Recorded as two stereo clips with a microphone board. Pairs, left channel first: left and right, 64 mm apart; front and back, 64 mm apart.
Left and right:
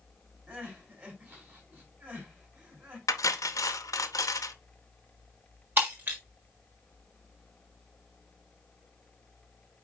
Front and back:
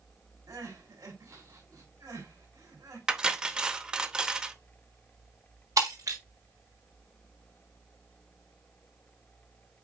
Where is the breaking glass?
150° right, 4 m.